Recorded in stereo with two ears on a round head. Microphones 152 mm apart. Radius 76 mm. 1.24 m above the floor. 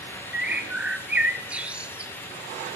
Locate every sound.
0.3 s a bird: 10° right (ahead or behind), 0.6 m